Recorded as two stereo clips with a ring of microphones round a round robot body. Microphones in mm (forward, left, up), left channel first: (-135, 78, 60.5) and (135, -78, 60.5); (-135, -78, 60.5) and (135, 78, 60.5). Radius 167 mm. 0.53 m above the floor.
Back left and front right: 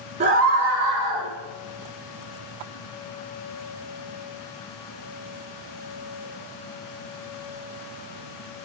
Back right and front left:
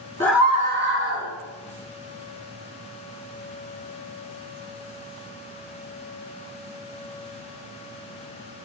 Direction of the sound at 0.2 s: 70° right.